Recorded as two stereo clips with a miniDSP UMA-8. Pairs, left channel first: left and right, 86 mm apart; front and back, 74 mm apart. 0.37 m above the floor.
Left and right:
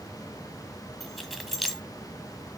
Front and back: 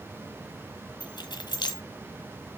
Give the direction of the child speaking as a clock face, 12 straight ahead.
No child speaking in this recording.